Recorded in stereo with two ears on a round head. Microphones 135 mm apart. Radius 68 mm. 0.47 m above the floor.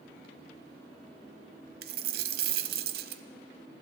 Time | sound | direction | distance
1.8 | a dropped coin | 75° right (ahead or behind) | 0.8 m